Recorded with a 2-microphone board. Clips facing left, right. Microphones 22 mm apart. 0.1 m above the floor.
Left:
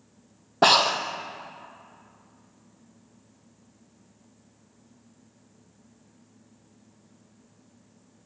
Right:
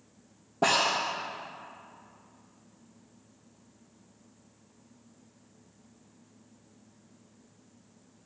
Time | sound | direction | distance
0.6 | breathing | 70° left (ahead or behind) | 0.7 m